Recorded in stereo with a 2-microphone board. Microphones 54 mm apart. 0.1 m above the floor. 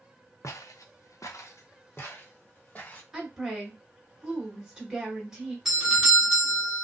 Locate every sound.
0.4 s footsteps: 65° left (ahead or behind), 0.7 m; by 3.0 s 30° left (ahead or behind), 1.5 m
3.1 s a woman speaking: 10° right (ahead or behind), 1.7 m
5.7 s a doorbell: 5° right (ahead or behind), 1.6 m